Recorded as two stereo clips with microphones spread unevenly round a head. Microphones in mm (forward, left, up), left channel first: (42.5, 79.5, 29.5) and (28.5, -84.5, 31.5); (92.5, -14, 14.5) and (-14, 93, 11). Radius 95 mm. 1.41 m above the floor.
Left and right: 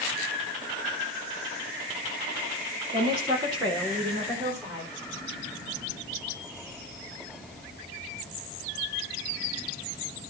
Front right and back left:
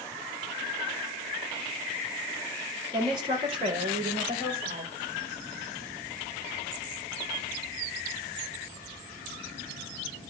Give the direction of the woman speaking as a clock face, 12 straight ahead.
5 o'clock.